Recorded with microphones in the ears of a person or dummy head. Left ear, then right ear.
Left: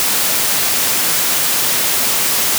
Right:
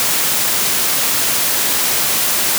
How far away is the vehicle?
No vehicle in this recording.